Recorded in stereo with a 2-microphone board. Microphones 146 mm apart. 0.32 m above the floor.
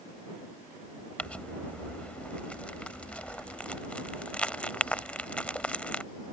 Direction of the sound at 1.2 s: 10° left (ahead or behind).